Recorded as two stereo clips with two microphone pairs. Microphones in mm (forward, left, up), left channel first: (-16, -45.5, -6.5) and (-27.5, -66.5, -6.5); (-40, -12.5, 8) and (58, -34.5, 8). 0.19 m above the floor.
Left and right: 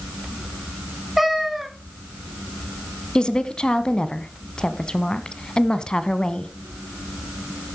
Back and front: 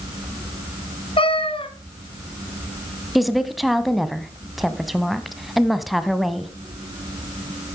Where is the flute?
I don't hear a flute.